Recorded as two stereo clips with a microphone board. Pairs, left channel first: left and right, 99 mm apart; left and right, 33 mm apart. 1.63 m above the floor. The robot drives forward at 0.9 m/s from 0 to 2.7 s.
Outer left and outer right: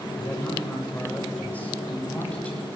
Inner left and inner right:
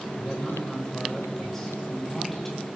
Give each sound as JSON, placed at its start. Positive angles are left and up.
{"t": 0.2, "sound": "a man speaking", "side_deg": 20, "distance_m": 7.0}